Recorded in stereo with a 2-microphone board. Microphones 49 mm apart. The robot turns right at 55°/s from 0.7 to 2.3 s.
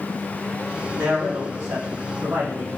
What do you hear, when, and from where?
1.0 s a man speaking: 130° right, 1.1 m; by 2.8 s 55° right, 1.1 m